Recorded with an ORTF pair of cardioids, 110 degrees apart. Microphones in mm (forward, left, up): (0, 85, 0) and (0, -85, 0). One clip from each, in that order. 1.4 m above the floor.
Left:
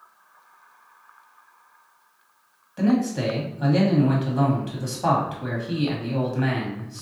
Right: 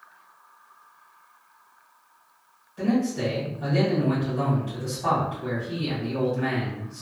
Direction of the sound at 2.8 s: 50° left.